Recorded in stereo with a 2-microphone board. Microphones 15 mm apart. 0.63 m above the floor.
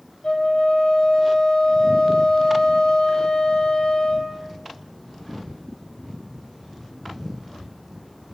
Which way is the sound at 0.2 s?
75° left (ahead or behind).